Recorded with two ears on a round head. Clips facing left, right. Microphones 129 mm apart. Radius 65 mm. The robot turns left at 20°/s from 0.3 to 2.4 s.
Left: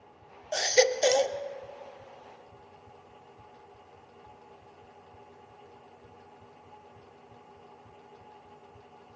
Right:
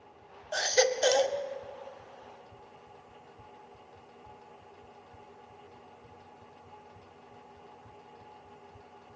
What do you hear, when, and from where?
0.5 s a baby crying: 20° left (ahead or behind), 0.7 m; by 1.4 s 5° left (ahead or behind), 0.7 m